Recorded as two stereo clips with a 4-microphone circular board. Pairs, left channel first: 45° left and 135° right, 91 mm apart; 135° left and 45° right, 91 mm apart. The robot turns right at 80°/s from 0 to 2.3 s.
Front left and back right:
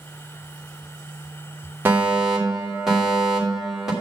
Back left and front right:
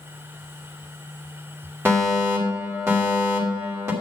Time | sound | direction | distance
1.9 | a fire alarm | 85° right | 2.5 m